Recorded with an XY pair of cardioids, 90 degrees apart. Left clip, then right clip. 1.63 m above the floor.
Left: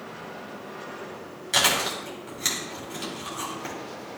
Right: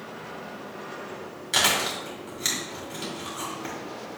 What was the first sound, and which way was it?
Chewing, 10° left.